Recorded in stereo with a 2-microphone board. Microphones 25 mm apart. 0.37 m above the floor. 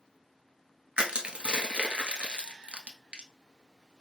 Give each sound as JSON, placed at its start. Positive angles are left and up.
{"t": 1.0, "sound": "crushing", "side_deg": -45, "distance_m": 0.9}